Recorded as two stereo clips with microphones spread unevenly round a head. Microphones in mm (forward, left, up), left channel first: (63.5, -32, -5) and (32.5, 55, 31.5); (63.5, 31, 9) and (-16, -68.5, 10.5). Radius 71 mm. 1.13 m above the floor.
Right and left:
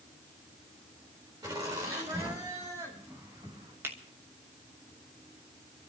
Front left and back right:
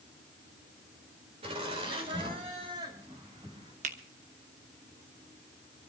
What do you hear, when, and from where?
1.4 s laughter: straight behind, 4 m; by 3.7 s 170° left, 6 m
3.8 s a finger snap: 175° right, 1.0 m